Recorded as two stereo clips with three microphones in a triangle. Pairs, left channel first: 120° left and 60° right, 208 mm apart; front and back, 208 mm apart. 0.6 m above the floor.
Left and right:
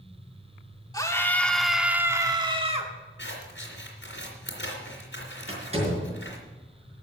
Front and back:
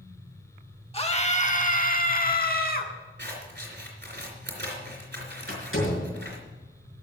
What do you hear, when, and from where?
0.9 s a scream: 55° left, 1.5 m; by 2.9 s 15° right, 1.5 m
3.2 s scissors: 150° left, 3 m
5.5 s a door slam: straight ahead, 5 m